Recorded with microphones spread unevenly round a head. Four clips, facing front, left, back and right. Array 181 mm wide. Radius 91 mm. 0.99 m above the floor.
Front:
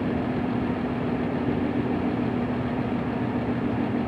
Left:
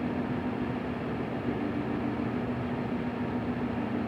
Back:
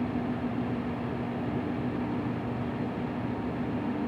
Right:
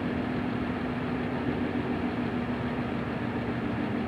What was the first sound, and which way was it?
Only background noise.